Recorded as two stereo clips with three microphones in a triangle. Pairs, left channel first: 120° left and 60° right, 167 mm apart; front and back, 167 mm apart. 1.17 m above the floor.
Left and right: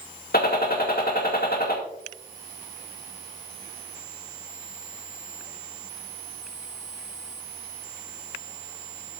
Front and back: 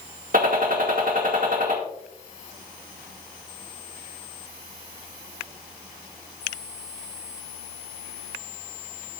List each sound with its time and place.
0.3 s a gunshot: 145° left, 1.9 m